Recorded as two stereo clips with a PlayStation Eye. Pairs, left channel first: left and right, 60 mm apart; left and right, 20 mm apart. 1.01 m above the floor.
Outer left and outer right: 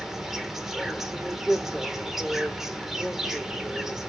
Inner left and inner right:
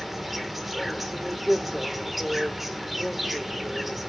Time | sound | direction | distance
0.0 | an insect | 5° right (ahead or behind) | 1.0 m